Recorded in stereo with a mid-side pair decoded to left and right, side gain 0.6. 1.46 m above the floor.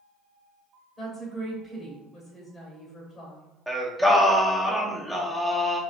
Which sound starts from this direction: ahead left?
A woman speaking, at 1.0 s.